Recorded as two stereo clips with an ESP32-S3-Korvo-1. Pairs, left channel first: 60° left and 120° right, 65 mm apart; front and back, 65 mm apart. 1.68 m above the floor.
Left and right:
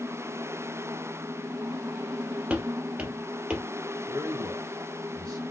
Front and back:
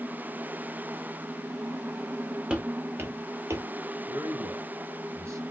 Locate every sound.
2.5 s footsteps: 145° right, 1.7 m; by 3.6 s 170° left, 2.5 m
4.1 s a man speaking: 140° right, 2 m